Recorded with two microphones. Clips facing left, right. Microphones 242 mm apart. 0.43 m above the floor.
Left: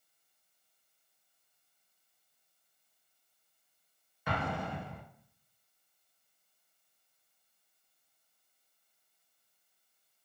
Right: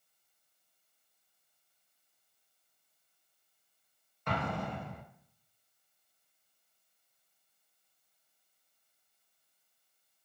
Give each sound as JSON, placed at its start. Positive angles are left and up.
{"t": 4.3, "sound": "an explosion", "side_deg": 5, "distance_m": 0.7}